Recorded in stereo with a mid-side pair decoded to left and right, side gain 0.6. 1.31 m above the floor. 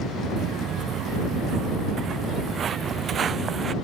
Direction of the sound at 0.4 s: 55° right.